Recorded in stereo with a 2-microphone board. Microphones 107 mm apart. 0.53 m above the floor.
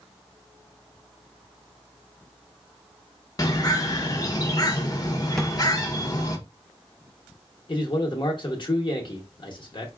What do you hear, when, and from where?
3.4 s a bird: 35° left (ahead or behind), 0.6 m
5.4 s a drawer: centre (ahead or behind), 0.6 m
7.7 s a man speaking: 50° left (ahead or behind), 0.9 m